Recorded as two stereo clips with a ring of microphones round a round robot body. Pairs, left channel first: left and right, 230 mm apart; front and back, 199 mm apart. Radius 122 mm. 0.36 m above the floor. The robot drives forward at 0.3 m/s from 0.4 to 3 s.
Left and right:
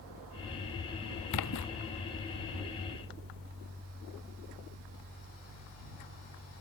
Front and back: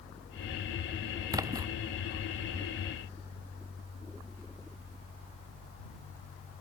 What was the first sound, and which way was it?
A splash, 105° left.